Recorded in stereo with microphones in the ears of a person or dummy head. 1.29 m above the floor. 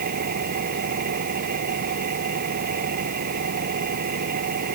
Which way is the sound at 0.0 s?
50° right (ahead or behind).